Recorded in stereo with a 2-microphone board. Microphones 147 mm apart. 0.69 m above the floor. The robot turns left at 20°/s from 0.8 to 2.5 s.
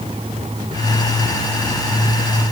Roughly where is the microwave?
I don't hear a microwave.